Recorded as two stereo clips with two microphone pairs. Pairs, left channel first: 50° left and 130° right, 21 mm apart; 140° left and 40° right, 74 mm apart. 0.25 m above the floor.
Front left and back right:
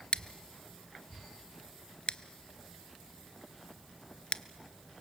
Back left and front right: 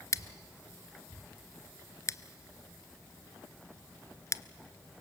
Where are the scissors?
95° left, 0.5 m.